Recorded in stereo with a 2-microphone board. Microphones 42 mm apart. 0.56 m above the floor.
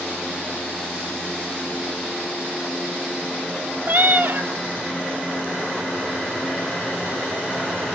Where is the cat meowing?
50° right (ahead or behind), 1.2 m.